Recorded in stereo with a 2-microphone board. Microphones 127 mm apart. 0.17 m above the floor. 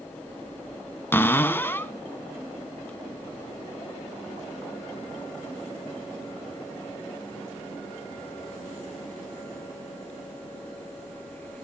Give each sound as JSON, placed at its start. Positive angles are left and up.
{"t": 1.1, "sound": "a cupboard door", "side_deg": 15, "distance_m": 0.6}